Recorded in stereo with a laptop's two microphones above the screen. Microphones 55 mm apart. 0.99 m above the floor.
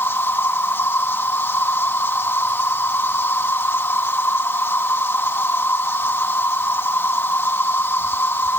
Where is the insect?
45° left (ahead or behind).